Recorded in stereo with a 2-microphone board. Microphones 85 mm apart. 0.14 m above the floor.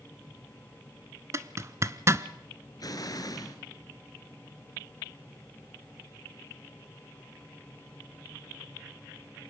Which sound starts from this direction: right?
A zipper, at 1.3 s.